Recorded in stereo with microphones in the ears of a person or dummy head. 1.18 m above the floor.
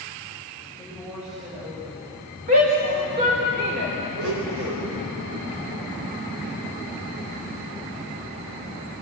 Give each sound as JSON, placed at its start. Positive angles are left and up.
{"t": 0.8, "sound": "a woman speaking", "side_deg": -5, "distance_m": 6.0}
{"t": 2.5, "sound": "a shout", "side_deg": -40, "distance_m": 4.0}
{"t": 4.2, "sound": "a blender", "side_deg": -85, "distance_m": 4.0}